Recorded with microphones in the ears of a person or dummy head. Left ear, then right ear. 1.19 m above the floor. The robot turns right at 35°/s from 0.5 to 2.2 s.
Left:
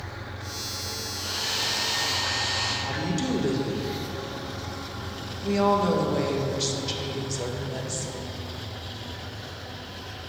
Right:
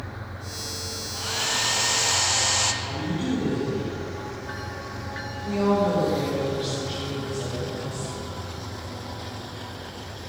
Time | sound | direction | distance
1.1 | a hair dryer | 155° right | 0.5 m
2.8 | a woman speaking | 75° left (ahead or behind) | 1.3 m